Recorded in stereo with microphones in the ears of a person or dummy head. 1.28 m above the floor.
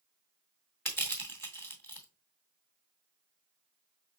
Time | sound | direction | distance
0.8 | crushing | 5° left (ahead or behind) | 1.0 m